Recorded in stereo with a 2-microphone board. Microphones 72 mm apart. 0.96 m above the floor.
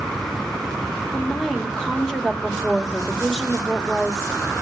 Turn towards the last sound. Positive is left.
turn(degrees=5)  # may be behind; listen again after turning